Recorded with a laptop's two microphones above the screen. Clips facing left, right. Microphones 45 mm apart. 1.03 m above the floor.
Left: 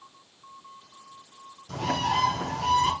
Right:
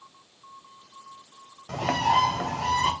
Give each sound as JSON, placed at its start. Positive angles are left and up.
{"t": 1.7, "sound": "a bird", "side_deg": -85, "distance_m": 3.0}